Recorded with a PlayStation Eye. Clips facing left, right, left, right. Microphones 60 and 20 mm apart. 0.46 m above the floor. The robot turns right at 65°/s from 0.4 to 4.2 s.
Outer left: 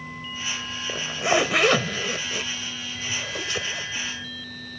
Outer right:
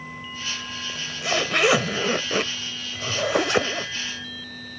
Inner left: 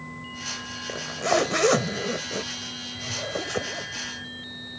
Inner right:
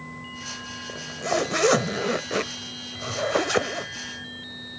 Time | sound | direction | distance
0.9 | a zipper | 135° left | ?